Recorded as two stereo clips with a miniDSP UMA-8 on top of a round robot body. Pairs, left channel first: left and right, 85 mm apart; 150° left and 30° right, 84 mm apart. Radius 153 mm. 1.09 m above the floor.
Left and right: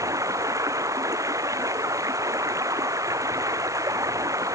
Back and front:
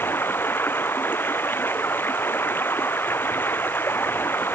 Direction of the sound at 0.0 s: 140° right.